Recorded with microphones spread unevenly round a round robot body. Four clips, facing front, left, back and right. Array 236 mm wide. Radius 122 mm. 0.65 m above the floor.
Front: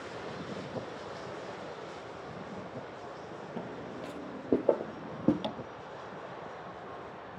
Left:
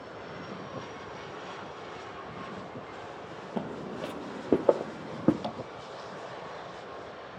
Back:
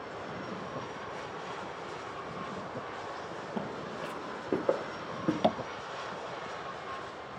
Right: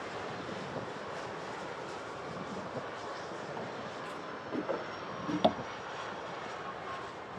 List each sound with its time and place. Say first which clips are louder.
3.6 s footsteps: left 5 dB, back 3 dB; 100° left, 1.1 m; by 5.3 s 65° left, 1.7 m
5.4 s tapping: right 9 dB, back 10 dB; 135° right, 0.7 m